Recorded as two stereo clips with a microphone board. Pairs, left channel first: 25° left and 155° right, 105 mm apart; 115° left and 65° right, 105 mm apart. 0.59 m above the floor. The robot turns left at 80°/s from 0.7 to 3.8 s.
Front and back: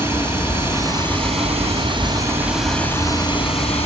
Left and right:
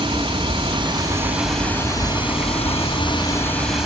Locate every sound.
0.0 s running water: 90° right, 3 m; by 3.9 s 20° left, 3 m